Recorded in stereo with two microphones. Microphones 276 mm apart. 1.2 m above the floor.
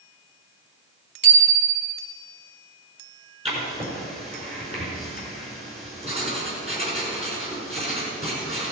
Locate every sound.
1.2 s a bicycle bell: 40° right (ahead or behind), 3 m
3.5 s writing: 25° right (ahead or behind), 5 m